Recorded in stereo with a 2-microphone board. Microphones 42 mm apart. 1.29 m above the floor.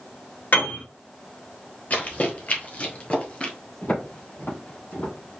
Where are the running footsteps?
40° left (ahead or behind), 1.6 m; by 3.5 s 25° left (ahead or behind), 1.4 m.